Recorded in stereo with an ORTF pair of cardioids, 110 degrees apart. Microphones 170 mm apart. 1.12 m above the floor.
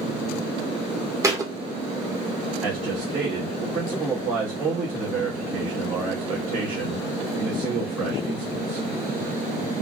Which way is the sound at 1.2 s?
20° right.